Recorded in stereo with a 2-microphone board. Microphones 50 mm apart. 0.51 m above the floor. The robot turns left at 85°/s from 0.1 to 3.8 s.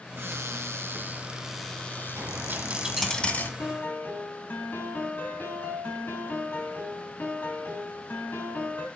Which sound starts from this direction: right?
A dropped coin, at 2.2 s.